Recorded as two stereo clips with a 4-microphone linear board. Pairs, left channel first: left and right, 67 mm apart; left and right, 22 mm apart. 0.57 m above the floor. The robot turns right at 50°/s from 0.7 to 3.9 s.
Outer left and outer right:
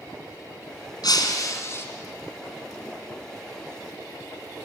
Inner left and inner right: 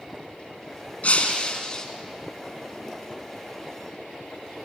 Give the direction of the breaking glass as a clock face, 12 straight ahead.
8 o'clock.